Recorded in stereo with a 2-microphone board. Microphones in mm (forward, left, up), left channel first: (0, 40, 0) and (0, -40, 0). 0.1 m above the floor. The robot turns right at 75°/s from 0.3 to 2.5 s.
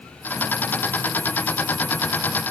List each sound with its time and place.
Only background noise.